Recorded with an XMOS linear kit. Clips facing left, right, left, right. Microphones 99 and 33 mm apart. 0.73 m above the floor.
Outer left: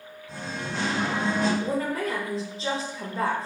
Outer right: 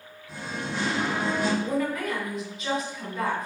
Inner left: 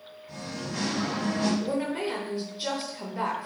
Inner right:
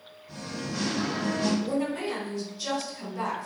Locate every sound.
0.3 s singing: 5° right (ahead or behind), 1.1 m
1.6 s a woman speaking: 30° left (ahead or behind), 0.7 m